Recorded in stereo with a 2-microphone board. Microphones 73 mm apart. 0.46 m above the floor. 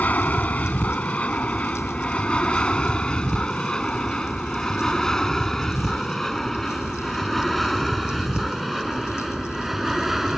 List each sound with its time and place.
0.0 s an aircraft: 20° left (ahead or behind); by 10.4 s 5° right (ahead or behind)